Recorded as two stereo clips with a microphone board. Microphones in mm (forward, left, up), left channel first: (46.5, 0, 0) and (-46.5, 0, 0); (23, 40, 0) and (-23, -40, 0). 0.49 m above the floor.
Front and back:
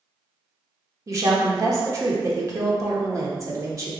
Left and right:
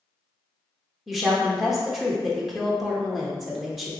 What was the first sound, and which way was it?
A woman speaking, 150° left.